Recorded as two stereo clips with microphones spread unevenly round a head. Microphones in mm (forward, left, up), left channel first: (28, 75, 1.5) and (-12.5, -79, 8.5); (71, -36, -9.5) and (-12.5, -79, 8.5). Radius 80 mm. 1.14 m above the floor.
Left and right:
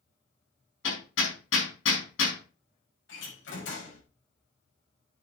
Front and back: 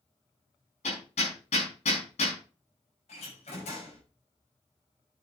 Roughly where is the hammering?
Left.